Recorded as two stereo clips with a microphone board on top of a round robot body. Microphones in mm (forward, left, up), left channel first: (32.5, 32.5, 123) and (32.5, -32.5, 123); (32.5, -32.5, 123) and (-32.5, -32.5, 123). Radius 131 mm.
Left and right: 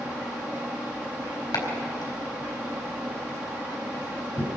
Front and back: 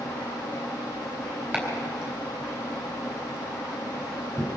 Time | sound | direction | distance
1.5 | chopping | 115° left | 4 m